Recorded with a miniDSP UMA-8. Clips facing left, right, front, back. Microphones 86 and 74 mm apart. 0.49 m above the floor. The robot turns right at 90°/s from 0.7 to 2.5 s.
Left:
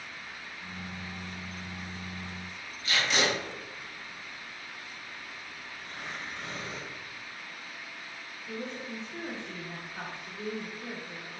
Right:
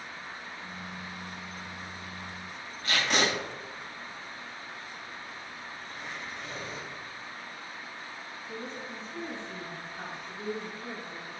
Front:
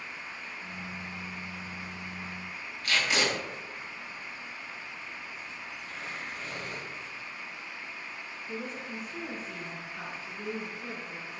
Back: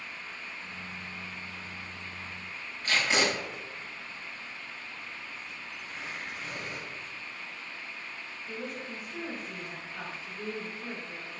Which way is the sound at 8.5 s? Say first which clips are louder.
Left 3 dB, front 1 dB; 115° left.